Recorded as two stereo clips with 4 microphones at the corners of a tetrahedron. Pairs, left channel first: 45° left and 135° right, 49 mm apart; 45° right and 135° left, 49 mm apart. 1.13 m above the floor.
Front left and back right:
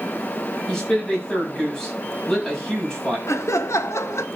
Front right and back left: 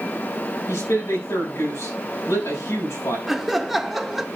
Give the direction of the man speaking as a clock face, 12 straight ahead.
1 o'clock.